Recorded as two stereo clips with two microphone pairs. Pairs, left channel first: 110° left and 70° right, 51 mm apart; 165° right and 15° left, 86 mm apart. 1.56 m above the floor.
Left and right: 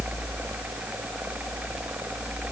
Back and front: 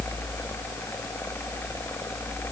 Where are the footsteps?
I don't hear footsteps.